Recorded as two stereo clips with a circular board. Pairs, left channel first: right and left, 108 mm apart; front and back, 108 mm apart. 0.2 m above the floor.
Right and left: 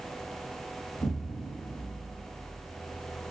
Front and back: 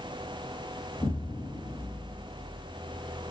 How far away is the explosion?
About 6 m.